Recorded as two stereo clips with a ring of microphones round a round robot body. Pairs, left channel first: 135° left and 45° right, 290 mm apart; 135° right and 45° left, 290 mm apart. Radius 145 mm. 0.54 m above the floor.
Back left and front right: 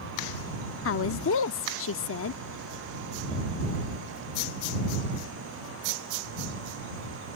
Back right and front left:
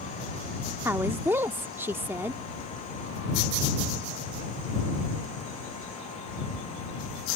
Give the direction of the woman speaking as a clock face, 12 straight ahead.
8 o'clock.